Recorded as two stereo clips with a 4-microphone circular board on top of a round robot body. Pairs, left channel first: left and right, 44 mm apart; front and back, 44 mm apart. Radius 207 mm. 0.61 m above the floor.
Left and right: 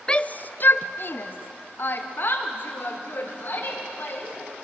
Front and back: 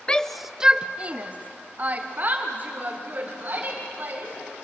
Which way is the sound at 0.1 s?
40° left.